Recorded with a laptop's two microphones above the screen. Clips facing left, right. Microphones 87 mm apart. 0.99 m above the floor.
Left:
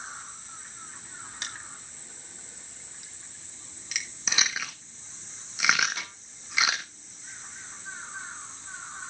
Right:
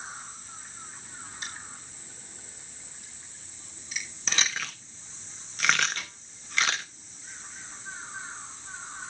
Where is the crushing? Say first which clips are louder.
Even; 80° left, 2 m.